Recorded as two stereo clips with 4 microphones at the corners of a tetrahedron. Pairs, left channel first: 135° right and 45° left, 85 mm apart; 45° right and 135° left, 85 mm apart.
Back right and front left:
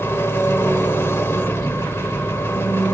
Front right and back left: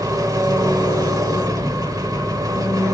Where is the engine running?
170° left, 1.3 m.